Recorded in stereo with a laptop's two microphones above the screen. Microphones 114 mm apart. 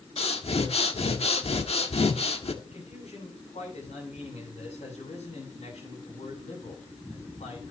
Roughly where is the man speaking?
Left.